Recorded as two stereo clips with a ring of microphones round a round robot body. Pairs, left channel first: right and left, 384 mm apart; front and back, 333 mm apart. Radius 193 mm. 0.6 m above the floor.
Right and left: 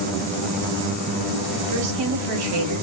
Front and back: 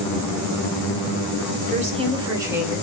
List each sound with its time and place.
1.7 s a woman speaking: 115° left, 1.9 m; by 2.8 s 90° left, 1.8 m